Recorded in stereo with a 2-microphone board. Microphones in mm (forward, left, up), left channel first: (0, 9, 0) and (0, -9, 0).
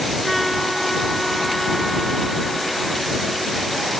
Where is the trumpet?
5° left (ahead or behind).